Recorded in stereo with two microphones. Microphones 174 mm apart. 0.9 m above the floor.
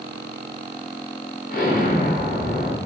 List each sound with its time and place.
1.5 s an explosion: 50° left (ahead or behind), 0.7 m